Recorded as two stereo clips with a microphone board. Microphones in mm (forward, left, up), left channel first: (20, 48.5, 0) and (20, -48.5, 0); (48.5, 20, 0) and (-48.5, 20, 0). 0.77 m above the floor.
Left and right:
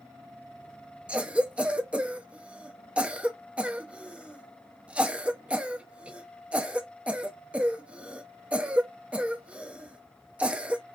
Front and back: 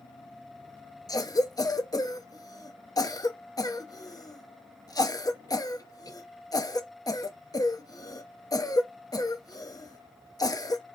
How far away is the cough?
About 0.7 m.